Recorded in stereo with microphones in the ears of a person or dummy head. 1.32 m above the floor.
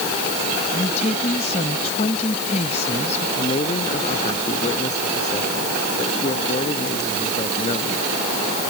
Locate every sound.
0.7 s a woman speaking: 40° left (ahead or behind)
3.4 s a man speaking: 40° left (ahead or behind)